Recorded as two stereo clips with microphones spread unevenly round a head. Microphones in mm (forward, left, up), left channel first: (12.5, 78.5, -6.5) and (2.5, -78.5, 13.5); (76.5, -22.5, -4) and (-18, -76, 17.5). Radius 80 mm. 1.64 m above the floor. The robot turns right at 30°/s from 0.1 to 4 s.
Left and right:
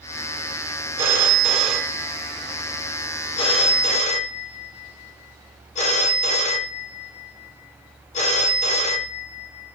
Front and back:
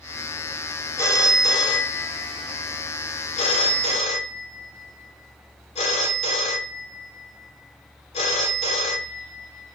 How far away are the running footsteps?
I don't hear running footsteps.